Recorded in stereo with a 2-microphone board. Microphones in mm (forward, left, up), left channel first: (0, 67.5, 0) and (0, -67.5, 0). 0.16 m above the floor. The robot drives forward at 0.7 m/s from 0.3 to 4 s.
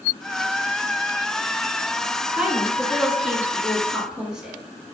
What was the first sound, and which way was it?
A woman speaking, 5° right (ahead or behind).